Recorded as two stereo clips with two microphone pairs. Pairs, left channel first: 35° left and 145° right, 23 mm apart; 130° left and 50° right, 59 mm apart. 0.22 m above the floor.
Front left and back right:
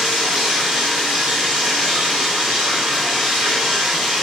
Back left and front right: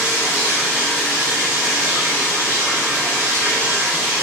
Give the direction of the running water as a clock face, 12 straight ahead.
4 o'clock.